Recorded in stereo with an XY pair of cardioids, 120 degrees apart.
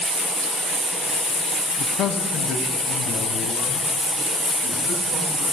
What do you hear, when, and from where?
1.8 s a man speaking: 60° left, 0.6 m; by 5.4 s 50° left, 2.5 m